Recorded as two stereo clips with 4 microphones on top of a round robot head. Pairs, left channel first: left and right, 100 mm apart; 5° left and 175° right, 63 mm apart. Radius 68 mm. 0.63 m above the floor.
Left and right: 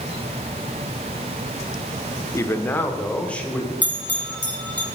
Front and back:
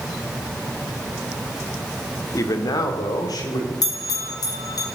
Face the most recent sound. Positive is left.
turn(degrees=15)